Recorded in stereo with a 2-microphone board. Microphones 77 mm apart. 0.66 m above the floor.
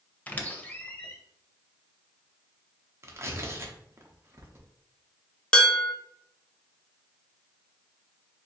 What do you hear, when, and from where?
0.3 s a squeak: 20° left (ahead or behind), 0.5 m
3.0 s tearing paper: 35° right (ahead or behind), 0.7 m
5.5 s dishes clattering: 10° left (ahead or behind), 0.6 m